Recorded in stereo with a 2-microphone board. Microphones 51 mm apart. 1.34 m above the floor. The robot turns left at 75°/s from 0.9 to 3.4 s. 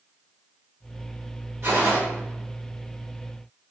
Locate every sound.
1.6 s a gunshot: 50° right (ahead or behind), 1.5 m; by 2.0 s 30° right (ahead or behind), 1.5 m